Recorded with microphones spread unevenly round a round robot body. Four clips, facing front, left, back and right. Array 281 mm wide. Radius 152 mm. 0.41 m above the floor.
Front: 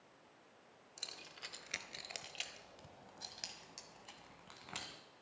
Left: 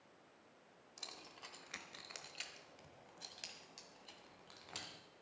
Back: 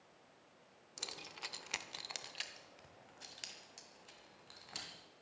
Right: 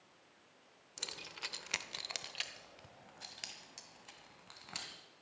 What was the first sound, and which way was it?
Keys jangling, 115° right.